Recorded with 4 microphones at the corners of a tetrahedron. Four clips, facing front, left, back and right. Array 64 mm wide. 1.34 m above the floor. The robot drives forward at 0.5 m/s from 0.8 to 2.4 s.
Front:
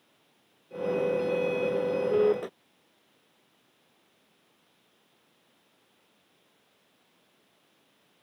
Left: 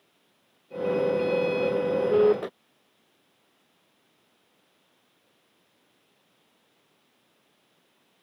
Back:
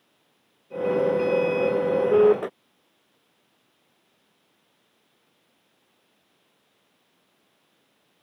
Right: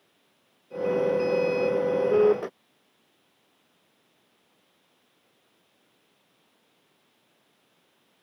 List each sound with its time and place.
Only background noise.